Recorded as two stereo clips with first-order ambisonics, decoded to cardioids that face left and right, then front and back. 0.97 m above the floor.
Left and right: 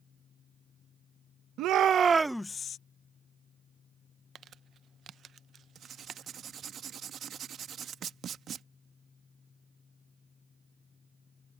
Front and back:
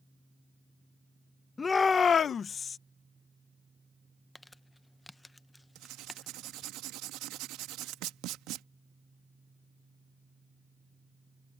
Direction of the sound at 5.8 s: 150° right.